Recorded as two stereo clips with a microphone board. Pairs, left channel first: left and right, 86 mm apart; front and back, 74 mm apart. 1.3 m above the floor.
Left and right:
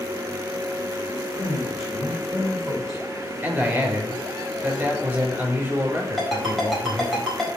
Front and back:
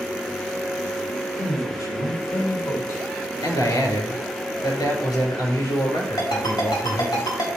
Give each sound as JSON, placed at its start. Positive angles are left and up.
{"t": 1.4, "sound": "a man speaking", "azimuth_deg": -5, "distance_m": 5.5}
{"t": 3.4, "sound": "a man speaking", "azimuth_deg": -20, "distance_m": 5.5}
{"t": 6.2, "sound": "a ringtone", "azimuth_deg": 0, "distance_m": 4.0}